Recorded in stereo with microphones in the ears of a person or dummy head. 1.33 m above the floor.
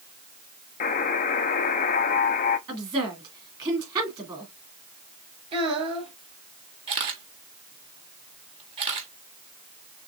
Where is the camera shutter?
30° right (ahead or behind), 1.2 m.